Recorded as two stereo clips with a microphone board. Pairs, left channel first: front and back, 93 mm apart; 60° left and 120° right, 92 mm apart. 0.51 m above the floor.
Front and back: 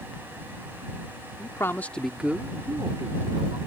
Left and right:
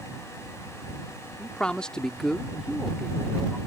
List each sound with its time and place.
1.4 s a man speaking: 10° right; by 3.6 s 155° left